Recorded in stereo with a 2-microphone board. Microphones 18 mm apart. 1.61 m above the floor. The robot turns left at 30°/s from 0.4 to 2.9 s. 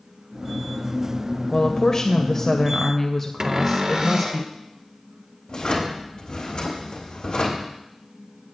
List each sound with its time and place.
1.5 s a woman speaking: 50° left, 0.7 m; by 4.4 s 10° left, 0.7 m
3.4 s a cupboard door: 40° right (ahead or behind), 0.7 m
5.5 s a drawer: 50° left (ahead or behind), 2.5 m